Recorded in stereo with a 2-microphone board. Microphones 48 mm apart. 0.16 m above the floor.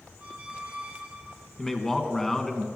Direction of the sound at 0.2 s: 35° right (ahead or behind).